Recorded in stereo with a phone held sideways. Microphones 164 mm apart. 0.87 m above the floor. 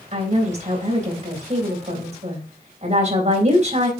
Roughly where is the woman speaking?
Right.